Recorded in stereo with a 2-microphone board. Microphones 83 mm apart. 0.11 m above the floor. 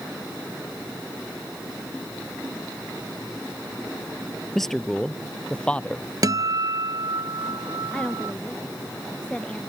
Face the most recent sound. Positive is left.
turn(degrees=15)  # may be behind; listen again after turning